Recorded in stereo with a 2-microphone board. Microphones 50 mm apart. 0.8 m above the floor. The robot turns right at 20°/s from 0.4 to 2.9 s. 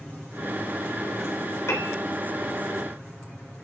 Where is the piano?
75° left (ahead or behind), 3 m; by 2.0 s 70° left (ahead or behind), 3 m.